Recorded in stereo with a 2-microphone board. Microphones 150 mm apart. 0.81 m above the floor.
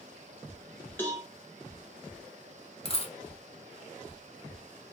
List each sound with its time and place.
1.0 s a cowbell: 15° left (ahead or behind), 1.0 m
2.9 s a dropped coin: 40° left (ahead or behind), 0.6 m